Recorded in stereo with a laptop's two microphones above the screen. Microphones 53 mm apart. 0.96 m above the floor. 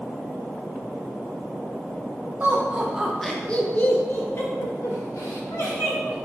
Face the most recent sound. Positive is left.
turn(degrees=65)  # may be behind; listen again after turning